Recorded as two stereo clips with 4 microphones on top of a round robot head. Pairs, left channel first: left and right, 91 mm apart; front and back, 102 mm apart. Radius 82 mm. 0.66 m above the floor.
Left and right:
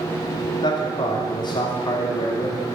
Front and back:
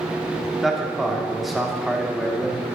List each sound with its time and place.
0.6 s a man speaking: 95° left, 1.5 m